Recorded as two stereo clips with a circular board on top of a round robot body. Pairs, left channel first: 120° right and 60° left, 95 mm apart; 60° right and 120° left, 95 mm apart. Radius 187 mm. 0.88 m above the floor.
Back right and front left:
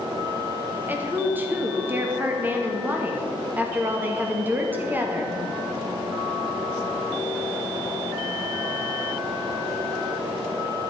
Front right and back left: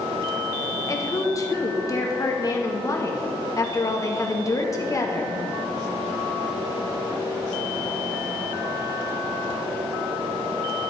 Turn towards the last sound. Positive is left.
turn(degrees=-10)